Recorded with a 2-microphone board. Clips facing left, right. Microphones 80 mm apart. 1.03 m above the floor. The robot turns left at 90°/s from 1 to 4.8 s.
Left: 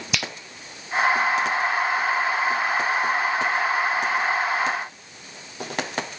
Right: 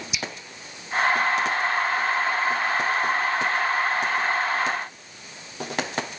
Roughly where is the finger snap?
Left.